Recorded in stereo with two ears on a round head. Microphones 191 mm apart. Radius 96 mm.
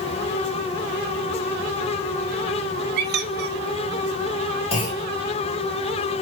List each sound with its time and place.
3.0 s a squeak: 55° right (ahead or behind), 0.9 m
4.7 s a clunk: 30° left (ahead or behind), 3 m